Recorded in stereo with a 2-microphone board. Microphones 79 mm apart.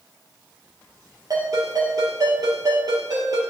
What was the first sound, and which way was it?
A ringtone, 55° right (ahead or behind).